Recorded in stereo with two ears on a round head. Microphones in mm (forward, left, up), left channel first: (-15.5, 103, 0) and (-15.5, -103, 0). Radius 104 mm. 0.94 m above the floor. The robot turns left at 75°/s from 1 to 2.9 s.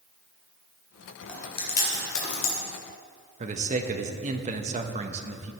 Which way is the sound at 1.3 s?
5° left (ahead or behind).